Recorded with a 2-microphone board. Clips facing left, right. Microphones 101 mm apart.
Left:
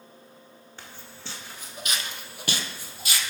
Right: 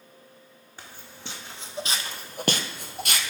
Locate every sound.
0.8 s footsteps: 15° right (ahead or behind), 1.1 m; by 3.3 s 55° right (ahead or behind), 0.6 m